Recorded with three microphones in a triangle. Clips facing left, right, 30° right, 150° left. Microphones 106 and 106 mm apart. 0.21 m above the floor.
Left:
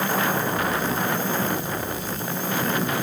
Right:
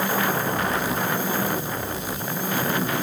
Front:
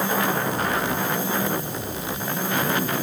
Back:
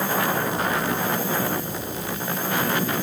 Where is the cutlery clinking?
No cutlery clinking in this recording.